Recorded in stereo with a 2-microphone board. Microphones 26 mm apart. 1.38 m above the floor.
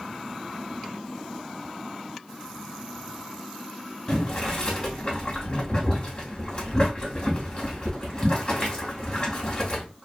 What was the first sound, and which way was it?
Boiling, 40° left (ahead or behind).